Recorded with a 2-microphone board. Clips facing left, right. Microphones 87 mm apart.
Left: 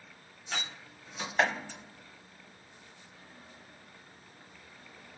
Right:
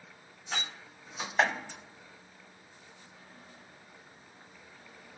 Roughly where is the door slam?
Centre.